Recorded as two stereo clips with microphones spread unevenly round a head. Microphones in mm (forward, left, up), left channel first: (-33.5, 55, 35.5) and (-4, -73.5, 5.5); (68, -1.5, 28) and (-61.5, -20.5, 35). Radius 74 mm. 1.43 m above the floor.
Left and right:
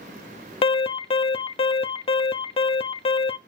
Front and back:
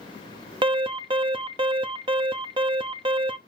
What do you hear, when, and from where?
0.6 s an alarm: 150° left, 1.1 m